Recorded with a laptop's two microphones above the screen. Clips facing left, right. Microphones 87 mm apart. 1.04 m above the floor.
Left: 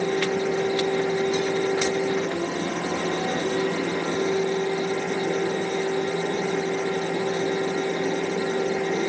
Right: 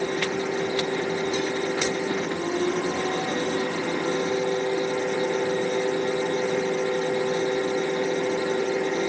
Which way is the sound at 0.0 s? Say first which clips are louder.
Left 3 dB; 70° left (ahead or behind).